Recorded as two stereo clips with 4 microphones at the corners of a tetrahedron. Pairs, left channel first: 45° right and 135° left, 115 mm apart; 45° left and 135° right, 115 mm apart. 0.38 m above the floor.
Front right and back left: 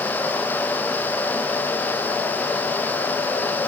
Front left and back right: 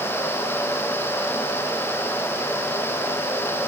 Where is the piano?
No piano in this recording.